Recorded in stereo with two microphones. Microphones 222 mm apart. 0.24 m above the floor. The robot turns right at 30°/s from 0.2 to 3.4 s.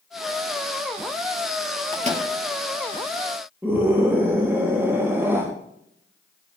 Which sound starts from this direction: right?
A microwave, at 1.9 s.